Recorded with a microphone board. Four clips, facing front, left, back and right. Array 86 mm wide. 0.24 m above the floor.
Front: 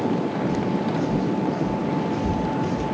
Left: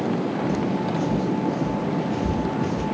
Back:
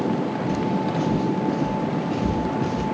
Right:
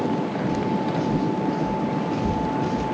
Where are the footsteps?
170° right, 3 m; by 2.9 s 150° right, 5.5 m.